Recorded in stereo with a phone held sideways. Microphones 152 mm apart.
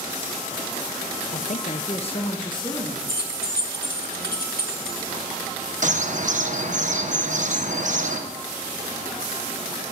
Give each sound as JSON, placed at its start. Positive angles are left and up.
{"t": 1.3, "sound": "a woman speaking", "side_deg": 55, "distance_m": 0.6}
{"t": 3.1, "sound": "keys jangling", "side_deg": 75, "distance_m": 1.6}
{"t": 5.8, "sound": "a bird", "side_deg": -55, "distance_m": 1.0}